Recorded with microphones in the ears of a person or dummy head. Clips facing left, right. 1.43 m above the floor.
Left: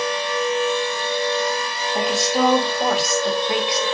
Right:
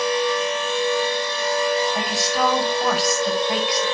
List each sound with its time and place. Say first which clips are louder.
1.9 s a woman speaking: left 3 dB; 25° left (ahead or behind), 5.5 m